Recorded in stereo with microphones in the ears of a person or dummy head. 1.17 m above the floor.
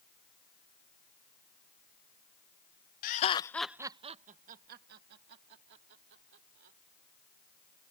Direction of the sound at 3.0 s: 50° left (ahead or behind).